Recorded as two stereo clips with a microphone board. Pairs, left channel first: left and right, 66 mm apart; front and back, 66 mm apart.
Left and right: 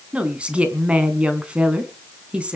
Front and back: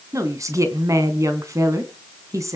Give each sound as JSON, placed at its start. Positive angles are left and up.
{"t": 0.1, "sound": "a woman speaking", "azimuth_deg": -160, "distance_m": 3.0}